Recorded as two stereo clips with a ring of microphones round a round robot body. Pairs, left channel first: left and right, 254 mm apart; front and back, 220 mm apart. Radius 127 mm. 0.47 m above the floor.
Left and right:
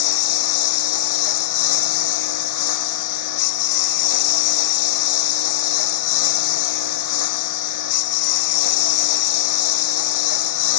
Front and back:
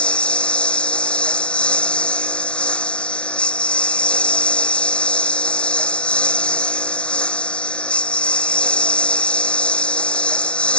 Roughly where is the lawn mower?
Left.